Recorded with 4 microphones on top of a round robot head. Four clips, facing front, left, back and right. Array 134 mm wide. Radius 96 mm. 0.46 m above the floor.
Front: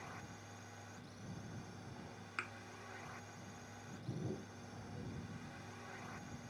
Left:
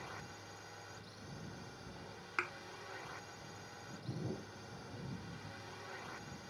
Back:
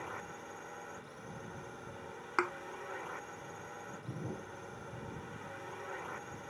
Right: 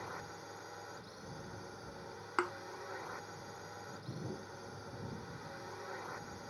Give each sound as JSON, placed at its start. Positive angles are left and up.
{"t": 0.0, "sound": "a drone", "azimuth_deg": -150}
{"t": 2.4, "sound": "a thud", "azimuth_deg": -145}